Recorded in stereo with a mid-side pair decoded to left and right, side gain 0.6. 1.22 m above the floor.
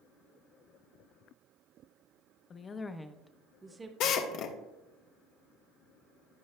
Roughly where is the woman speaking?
Ahead left.